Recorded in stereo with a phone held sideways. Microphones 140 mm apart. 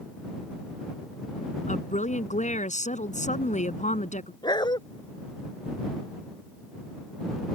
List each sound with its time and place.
1.7 s a woman speaking: 60° left (ahead or behind)
4.4 s a dog barking: 30° left (ahead or behind)